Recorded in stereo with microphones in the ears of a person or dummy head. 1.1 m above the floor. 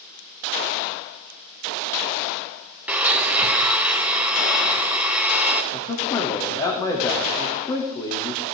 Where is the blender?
10° right (ahead or behind), 1.2 m.